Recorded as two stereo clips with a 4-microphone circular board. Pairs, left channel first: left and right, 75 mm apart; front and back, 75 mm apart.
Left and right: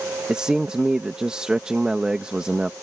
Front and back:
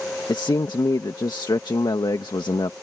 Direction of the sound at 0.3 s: 15° right.